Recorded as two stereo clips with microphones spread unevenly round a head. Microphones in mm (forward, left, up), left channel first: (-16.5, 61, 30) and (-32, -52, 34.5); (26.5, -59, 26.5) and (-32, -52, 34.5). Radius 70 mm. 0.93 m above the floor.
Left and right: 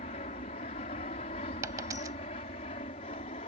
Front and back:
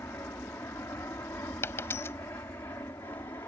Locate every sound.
0.0 s an aircraft: 55° left; by 3.5 s 50° left
1.6 s a dropped coin: 40° right